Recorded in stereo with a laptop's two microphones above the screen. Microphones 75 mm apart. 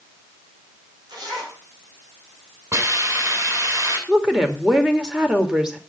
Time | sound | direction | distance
1.1 | a zipper | 80° right | 5.5 m
2.7 | a hiss | 45° right (ahead or behind) | 9 m
4.1 | a woman speaking | 10° right (ahead or behind) | 2.5 m